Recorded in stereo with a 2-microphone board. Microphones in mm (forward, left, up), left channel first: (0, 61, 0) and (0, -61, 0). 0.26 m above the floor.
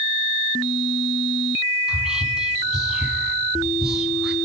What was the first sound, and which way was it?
Whispering, 5° right (ahead or behind).